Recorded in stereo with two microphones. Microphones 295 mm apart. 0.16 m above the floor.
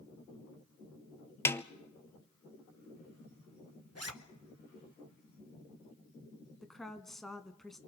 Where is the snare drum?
10° left (ahead or behind), 0.7 m.